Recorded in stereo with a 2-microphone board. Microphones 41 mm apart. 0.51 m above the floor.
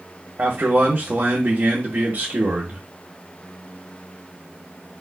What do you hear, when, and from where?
0.4 s a man speaking: 40° right (ahead or behind), 0.8 m